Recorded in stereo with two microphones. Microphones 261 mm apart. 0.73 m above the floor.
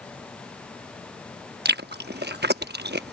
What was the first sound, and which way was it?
Chewing, 45° right (ahead or behind).